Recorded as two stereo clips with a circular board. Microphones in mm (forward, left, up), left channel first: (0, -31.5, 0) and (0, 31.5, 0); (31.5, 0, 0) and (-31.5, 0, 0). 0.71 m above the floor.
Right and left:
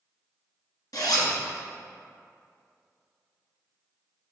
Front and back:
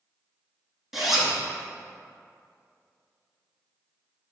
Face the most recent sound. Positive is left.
turn(degrees=-95)